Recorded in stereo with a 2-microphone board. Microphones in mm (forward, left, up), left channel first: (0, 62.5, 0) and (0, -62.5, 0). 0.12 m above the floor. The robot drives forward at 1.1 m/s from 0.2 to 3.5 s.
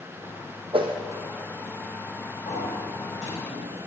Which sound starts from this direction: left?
A sliding door, at 2.5 s.